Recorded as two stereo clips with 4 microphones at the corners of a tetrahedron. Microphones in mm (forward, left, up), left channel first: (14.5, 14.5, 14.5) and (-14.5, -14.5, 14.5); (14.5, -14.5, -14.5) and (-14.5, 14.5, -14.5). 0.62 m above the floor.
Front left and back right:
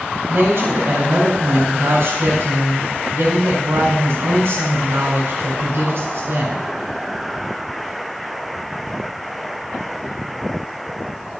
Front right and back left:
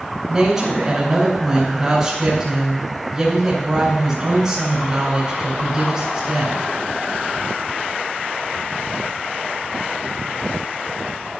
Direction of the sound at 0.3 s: 145° right.